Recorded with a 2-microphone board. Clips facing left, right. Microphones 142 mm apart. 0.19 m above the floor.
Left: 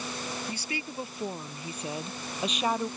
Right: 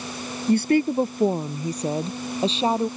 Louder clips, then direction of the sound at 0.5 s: Right 18 dB; 60° right (ahead or behind).